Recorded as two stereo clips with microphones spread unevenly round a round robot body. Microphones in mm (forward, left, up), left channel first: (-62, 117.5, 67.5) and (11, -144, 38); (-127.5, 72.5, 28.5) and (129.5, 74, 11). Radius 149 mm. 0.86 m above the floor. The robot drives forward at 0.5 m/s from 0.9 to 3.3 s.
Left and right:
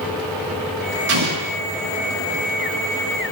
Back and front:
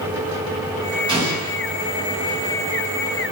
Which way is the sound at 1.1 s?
75° right.